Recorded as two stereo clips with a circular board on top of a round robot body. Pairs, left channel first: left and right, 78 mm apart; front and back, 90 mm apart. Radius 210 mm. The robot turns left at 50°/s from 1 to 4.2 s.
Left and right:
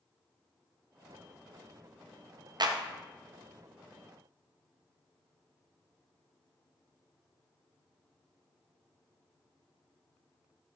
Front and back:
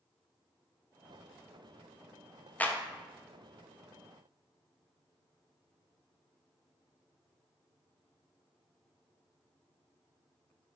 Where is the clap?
70° right, 0.6 m; by 2.8 s 80° right, 0.6 m.